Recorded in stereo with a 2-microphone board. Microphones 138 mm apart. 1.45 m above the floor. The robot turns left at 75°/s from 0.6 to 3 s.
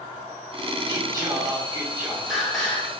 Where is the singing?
25° right (ahead or behind), 1.1 m; by 2.9 s 15° left (ahead or behind), 1.1 m.